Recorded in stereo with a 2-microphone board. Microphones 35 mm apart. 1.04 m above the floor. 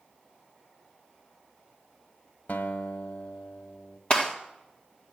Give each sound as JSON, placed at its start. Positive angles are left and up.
{"t": 2.5, "sound": "a guitar", "side_deg": 60, "distance_m": 1.4}
{"t": 4.1, "sound": "a gunshot", "side_deg": 30, "distance_m": 1.7}